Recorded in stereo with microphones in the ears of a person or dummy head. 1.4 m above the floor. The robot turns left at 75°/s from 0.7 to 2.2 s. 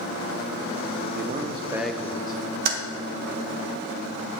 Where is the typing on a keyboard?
55° right (ahead or behind), 0.8 m.